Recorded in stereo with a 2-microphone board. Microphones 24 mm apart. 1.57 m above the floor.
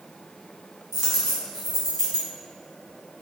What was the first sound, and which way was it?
A dropped coin, 15° right (ahead or behind).